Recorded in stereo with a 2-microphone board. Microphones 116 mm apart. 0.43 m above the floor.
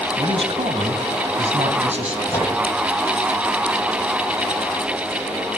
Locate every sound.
0.2 s a man speaking: 45° right (ahead or behind), 2.5 m; by 2.2 s 75° right (ahead or behind), 3.5 m
2.3 s a microwave: 20° left (ahead or behind), 9 m